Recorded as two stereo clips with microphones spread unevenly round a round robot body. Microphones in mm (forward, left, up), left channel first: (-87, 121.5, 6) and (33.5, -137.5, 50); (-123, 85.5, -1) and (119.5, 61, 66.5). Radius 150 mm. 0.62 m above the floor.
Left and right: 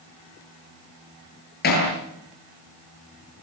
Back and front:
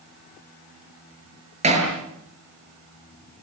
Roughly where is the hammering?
Ahead left.